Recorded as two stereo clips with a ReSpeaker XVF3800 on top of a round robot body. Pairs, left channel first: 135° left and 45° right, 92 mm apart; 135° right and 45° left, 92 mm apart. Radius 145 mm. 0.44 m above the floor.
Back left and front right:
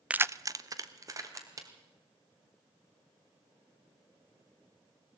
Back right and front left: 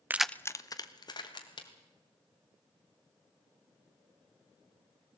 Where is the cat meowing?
I don't hear a cat meowing.